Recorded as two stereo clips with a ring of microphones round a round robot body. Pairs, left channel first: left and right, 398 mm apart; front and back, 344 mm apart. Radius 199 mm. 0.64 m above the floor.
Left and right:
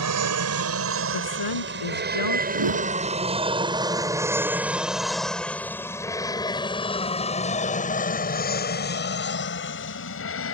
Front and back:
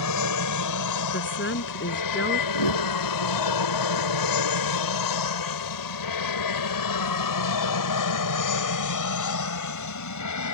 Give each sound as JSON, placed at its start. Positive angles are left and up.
{"t": 0.0, "sound": "an aircraft", "azimuth_deg": -40}
{"t": 1.1, "sound": "a woman speaking", "azimuth_deg": 55}
{"t": 2.5, "sound": "a whoosh", "azimuth_deg": -40}